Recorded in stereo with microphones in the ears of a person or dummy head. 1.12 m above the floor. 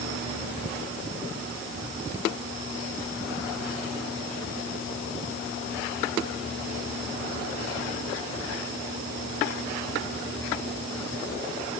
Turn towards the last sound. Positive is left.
No sound to turn to.